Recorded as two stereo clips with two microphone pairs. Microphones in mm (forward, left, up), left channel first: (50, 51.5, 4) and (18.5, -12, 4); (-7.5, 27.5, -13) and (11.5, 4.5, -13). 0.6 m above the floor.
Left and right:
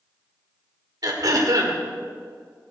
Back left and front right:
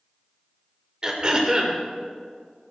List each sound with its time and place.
1.0 s throat clearing: 110° right, 2 m